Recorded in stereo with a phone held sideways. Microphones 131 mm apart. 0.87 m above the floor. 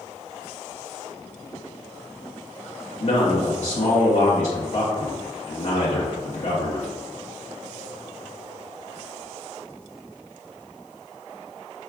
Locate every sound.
3.0 s a man speaking: 60° left (ahead or behind), 0.9 m